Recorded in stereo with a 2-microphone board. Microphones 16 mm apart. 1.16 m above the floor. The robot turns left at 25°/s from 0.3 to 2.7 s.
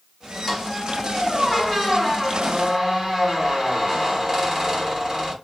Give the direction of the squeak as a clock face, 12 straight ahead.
11 o'clock.